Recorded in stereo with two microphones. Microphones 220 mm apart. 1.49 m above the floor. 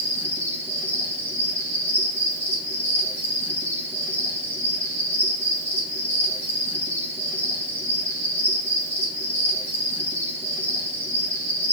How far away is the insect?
About 3 m.